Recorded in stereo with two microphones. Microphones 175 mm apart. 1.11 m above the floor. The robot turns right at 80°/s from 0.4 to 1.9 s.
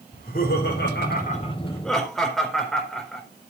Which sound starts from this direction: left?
Laughter, at 0.1 s.